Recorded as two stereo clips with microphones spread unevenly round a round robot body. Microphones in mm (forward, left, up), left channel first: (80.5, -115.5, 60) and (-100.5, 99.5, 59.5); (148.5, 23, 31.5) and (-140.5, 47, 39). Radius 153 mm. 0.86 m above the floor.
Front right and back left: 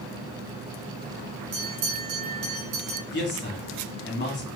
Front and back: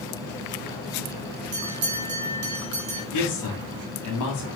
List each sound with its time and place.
1.5 s a bell: 150° left, 1.2 m
3.1 s a man speaking: 5° left, 2 m